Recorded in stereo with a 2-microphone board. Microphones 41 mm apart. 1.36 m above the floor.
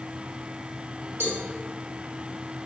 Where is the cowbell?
80° right, 2 m.